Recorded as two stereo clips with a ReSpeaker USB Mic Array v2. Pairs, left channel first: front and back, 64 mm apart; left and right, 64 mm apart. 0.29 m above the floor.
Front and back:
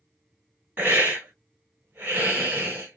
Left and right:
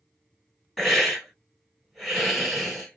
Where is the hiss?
175° left, 1.3 m.